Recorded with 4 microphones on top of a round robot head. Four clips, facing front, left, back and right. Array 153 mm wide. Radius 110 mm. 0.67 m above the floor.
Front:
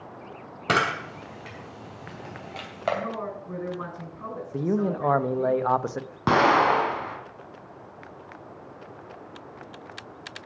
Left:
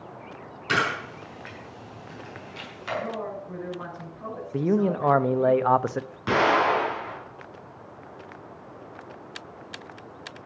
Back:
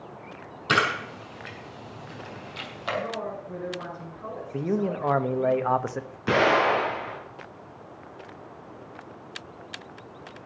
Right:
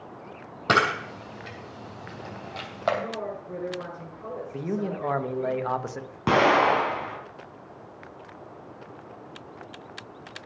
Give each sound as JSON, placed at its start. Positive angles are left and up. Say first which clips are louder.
{"t": 0.7, "sound": "a camera shutter", "louder": "right 3 dB, even", "azimuth_deg": -55, "distance_m": 3.0}
{"t": 3.0, "sound": "a woman speaking", "louder": "left 1 dB, back 1 dB", "azimuth_deg": 20, "distance_m": 8.5}
{"t": 4.5, "sound": "a man speaking", "louder": "left 8 dB, front 1 dB", "azimuth_deg": 80, "distance_m": 0.8}
{"t": 6.3, "sound": "an explosion", "louder": "right 2 dB, front 2 dB", "azimuth_deg": -35, "distance_m": 3.0}